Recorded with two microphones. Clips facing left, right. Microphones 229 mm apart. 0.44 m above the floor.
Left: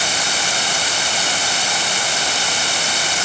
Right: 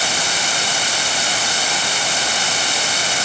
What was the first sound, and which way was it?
Only background noise.